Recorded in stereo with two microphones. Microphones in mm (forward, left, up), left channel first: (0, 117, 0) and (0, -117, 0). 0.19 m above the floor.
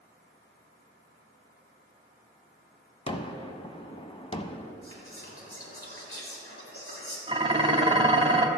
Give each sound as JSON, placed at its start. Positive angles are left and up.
{"t": 3.1, "sound": "a gunshot", "side_deg": 25, "distance_m": 0.6}
{"t": 4.8, "sound": "whispering", "side_deg": 70, "distance_m": 3.5}
{"t": 7.3, "sound": "dishes clattering", "side_deg": -25, "distance_m": 0.8}